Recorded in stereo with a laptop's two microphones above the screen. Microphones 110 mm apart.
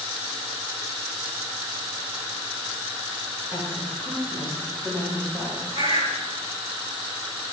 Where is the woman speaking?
20° right (ahead or behind), 3.5 m; by 5.6 s centre (ahead or behind), 6 m.